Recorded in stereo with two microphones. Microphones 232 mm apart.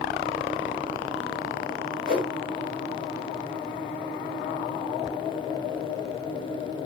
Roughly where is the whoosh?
Right.